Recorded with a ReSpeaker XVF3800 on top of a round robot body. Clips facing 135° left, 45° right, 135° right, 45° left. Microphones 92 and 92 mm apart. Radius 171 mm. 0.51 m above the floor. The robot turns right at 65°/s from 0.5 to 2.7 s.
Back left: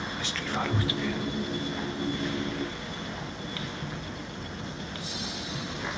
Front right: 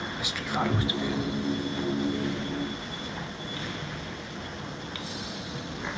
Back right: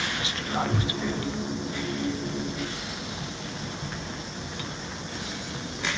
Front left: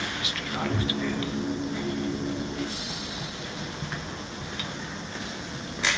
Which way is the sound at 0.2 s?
115° right.